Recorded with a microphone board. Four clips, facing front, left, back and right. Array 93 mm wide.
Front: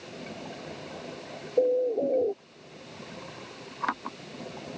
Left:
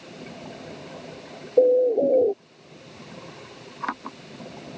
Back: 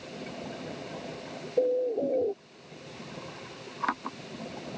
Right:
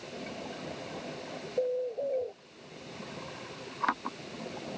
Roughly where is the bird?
Left.